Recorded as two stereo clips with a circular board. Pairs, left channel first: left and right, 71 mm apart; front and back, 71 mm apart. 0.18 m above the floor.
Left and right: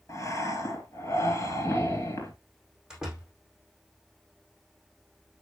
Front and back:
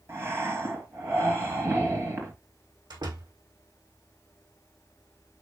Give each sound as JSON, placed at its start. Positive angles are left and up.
{"t": 0.1, "sound": "breathing", "azimuth_deg": 130, "distance_m": 3.5}
{"t": 2.9, "sound": "a door slam", "azimuth_deg": -170, "distance_m": 6.0}